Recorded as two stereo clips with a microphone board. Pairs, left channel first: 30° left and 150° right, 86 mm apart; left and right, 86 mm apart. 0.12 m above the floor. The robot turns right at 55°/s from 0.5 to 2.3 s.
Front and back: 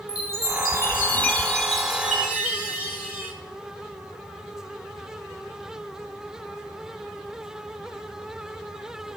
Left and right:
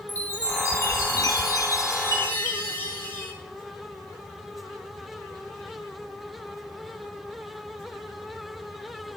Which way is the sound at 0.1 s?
45° left.